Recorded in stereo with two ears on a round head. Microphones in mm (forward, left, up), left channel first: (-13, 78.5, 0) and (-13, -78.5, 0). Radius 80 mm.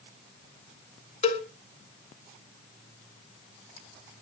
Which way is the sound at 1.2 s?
40° left (ahead or behind).